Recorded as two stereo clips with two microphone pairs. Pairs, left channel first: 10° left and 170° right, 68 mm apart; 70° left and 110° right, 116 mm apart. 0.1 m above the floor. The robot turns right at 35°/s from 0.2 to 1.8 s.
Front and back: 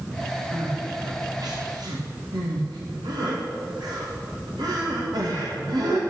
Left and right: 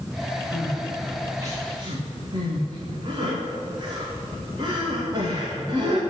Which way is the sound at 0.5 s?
155° left.